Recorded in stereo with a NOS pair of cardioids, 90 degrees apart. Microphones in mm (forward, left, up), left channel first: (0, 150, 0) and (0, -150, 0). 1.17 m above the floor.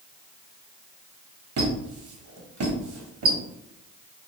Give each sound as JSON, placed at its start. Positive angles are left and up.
{"t": 1.6, "sound": "a squeak", "azimuth_deg": -55, "distance_m": 1.2}